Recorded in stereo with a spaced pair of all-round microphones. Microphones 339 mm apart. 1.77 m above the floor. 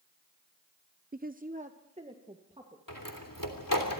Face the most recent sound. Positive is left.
turn(degrees=70)  # may be behind; listen again after turning